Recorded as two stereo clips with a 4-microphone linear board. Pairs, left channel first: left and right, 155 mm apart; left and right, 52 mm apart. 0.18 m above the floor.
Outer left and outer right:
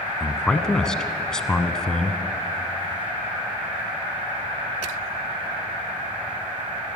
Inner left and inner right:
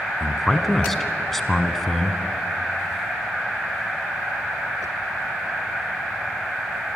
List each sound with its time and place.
0.2 s a man speaking: 5° left (ahead or behind), 1.4 m